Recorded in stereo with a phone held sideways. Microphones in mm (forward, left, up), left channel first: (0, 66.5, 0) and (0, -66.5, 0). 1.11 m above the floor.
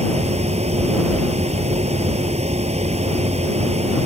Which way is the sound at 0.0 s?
55° right (ahead or behind).